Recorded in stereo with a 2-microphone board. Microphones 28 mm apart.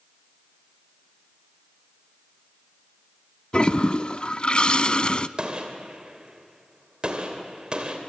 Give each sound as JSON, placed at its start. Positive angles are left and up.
{"t": 3.5, "sound": "a toilet flushing", "side_deg": 40, "distance_m": 0.6}
{"t": 5.4, "sound": "a gunshot", "side_deg": -35, "distance_m": 2.5}